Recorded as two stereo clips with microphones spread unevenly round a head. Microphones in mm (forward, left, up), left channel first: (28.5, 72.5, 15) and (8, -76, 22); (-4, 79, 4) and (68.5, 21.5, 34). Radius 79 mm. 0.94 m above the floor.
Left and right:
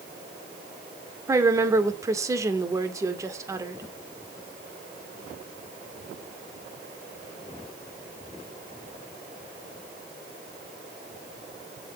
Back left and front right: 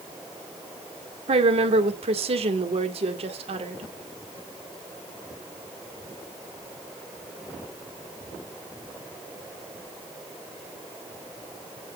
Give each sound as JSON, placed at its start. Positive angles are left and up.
{"t": 1.3, "sound": "a woman speaking", "azimuth_deg": -30, "distance_m": 2.0}